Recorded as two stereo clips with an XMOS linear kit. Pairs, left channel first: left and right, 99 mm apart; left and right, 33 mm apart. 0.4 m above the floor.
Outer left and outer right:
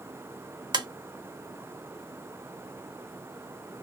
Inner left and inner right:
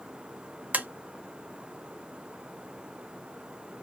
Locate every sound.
0.7 s tapping: 40° right (ahead or behind), 0.6 m